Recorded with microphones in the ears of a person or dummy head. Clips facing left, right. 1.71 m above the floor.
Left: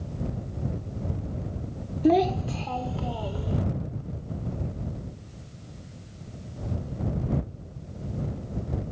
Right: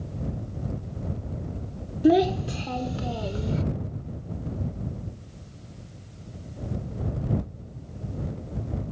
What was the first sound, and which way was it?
A child speaking, 15° right (ahead or behind).